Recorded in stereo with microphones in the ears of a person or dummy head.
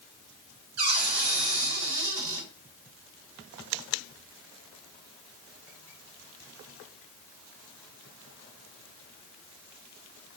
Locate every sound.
0.8 s a cupboard door: 75° right (ahead or behind), 4.5 m